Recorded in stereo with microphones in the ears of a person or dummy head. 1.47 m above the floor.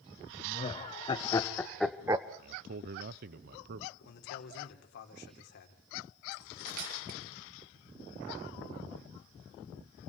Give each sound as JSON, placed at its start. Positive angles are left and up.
{"t": 0.4, "sound": "laughter", "side_deg": 35, "distance_m": 2.5}
{"t": 2.4, "sound": "a man speaking", "side_deg": -60, "distance_m": 0.6}
{"t": 4.0, "sound": "a man speaking", "side_deg": 60, "distance_m": 3.5}
{"t": 6.3, "sound": "cutlery clinking", "side_deg": -60, "distance_m": 6.0}